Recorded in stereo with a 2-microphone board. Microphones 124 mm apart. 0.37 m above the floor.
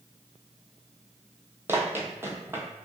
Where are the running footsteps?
20° right (ahead or behind), 0.7 m.